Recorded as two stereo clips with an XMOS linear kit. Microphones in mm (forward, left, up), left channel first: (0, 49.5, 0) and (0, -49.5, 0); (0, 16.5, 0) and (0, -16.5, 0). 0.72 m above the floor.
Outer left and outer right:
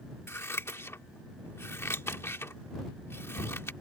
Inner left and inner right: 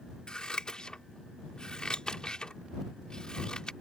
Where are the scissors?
25° left (ahead or behind).